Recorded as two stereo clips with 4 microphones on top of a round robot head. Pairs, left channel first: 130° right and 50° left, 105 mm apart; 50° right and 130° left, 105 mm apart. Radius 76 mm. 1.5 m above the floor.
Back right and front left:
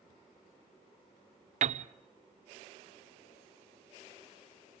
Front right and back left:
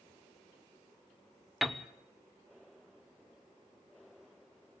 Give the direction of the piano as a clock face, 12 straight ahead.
11 o'clock.